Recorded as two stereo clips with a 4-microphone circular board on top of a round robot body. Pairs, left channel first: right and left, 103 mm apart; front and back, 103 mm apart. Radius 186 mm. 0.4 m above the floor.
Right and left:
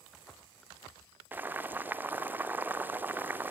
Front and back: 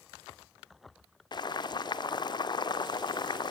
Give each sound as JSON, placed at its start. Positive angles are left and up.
{"t": 1.3, "sound": "boiling", "azimuth_deg": 25, "distance_m": 2.0}